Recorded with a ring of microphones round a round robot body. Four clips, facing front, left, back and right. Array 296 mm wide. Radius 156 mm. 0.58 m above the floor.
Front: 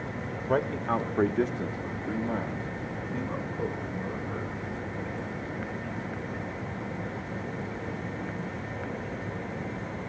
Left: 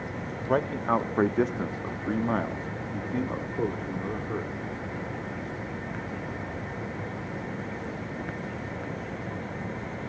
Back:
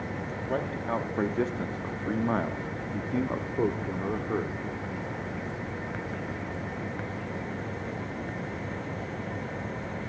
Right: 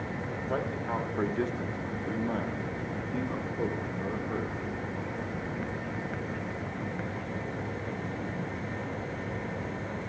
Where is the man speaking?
60° left, 1.2 m; by 4.6 s 170° left, 1.8 m.